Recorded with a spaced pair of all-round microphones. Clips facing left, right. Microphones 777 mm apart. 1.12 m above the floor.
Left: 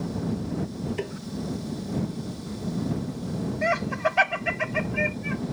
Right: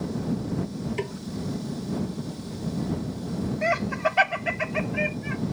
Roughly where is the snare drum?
Right.